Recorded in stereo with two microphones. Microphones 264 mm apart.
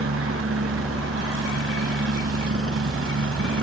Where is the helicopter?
65° right (ahead or behind); by 3.6 s 60° right (ahead or behind).